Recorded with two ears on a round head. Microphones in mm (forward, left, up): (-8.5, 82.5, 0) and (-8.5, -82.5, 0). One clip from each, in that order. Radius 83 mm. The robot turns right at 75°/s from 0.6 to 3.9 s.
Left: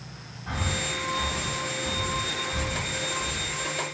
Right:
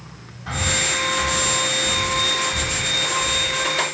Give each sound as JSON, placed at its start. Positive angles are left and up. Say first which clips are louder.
{"t": 0.5, "sound": "breathing", "louder": "right 8 dB", "side_deg": -65, "distance_m": 2.5}